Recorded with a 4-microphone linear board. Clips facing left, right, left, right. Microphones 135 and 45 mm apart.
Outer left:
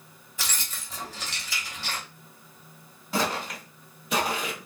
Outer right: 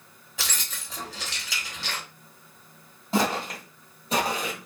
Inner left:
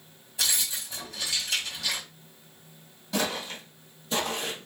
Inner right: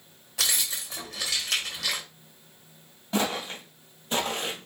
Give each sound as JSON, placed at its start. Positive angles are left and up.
{"t": 0.4, "sound": "keys jangling", "side_deg": -80, "distance_m": 1.0}
{"t": 3.1, "sound": "footsteps", "side_deg": -25, "distance_m": 1.7}